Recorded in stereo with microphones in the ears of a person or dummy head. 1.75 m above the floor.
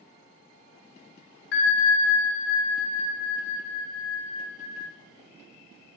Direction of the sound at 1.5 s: 60° left (ahead or behind).